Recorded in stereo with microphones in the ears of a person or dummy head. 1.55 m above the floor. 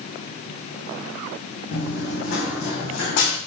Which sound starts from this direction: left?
Running footsteps, at 1.7 s.